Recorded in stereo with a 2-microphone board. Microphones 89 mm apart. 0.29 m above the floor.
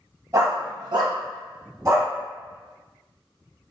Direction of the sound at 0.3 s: 35° right (ahead or behind).